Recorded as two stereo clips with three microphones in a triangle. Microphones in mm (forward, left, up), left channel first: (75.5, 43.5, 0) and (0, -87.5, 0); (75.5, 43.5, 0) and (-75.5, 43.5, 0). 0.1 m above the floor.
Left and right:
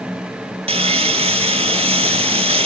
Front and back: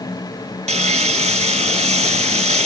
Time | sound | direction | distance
0.7 | sawing | 155° right | 0.5 m